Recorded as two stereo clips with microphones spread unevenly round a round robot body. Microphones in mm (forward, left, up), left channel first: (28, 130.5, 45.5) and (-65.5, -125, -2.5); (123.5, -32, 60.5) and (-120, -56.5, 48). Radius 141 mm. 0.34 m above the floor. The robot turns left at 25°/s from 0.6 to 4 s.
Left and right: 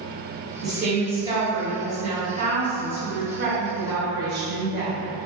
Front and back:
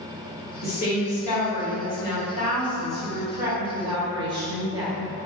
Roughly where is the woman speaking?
Ahead right.